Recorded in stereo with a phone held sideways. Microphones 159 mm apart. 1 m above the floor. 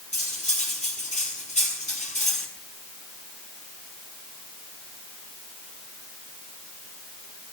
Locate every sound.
0.1 s cutlery clinking: 50° left (ahead or behind), 7 m